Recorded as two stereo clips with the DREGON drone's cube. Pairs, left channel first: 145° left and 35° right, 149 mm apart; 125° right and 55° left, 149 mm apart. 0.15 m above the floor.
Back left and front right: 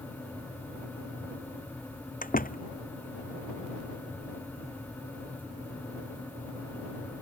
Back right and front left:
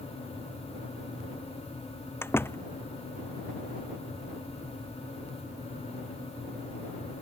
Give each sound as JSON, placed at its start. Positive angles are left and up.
{"t": 2.2, "sound": "a door slam", "azimuth_deg": 160}